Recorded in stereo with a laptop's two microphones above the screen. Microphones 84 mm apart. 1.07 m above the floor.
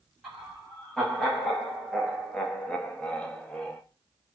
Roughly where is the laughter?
Centre.